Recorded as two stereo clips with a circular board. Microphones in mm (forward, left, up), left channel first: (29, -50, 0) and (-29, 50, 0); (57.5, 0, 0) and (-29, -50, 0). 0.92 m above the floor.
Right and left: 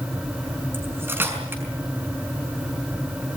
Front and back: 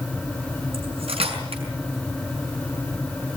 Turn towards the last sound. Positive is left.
turn(degrees=-170)